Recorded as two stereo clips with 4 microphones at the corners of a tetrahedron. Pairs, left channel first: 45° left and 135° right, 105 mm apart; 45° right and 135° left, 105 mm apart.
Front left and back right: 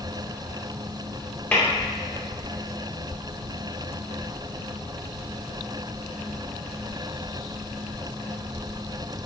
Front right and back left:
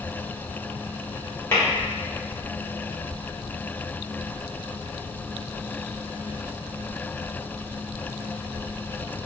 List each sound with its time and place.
1.5 s tapping: 10° right, 1.6 m